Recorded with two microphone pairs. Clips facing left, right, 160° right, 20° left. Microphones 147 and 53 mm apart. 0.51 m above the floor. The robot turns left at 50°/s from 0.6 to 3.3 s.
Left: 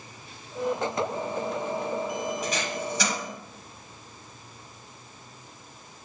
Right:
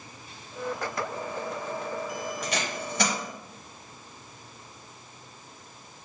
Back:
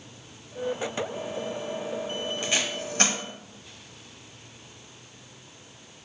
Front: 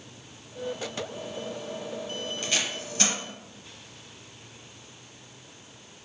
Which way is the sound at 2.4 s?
95° right.